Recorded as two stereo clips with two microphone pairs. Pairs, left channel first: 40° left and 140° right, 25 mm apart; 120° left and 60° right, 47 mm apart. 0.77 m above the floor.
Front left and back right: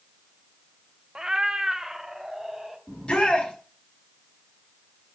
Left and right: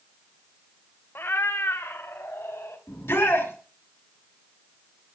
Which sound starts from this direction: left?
A shout, at 2.9 s.